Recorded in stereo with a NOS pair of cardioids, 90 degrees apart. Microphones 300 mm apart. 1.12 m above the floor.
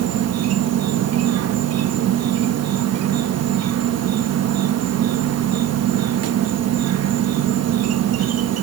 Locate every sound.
0.0 s an insect: 55° right